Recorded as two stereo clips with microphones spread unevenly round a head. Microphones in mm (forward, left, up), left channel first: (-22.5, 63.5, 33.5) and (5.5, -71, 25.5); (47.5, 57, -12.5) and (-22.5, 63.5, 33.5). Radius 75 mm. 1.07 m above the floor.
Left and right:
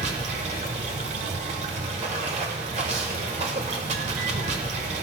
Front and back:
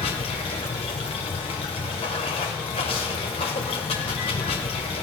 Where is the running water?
35° right, 1.2 m.